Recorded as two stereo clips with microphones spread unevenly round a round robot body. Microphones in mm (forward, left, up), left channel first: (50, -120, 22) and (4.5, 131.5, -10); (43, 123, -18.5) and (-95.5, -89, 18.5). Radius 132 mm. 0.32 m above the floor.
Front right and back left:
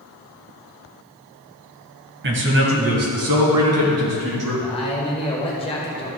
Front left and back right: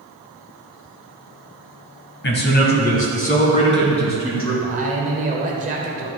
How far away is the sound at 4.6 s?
About 1.2 m.